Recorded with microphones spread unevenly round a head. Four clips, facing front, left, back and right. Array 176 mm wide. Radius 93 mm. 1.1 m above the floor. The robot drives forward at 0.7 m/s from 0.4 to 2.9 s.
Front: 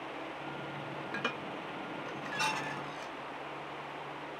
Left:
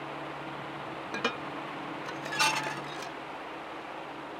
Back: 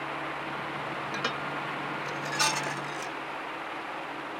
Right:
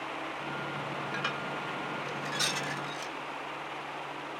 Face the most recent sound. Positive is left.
turn(degrees=145)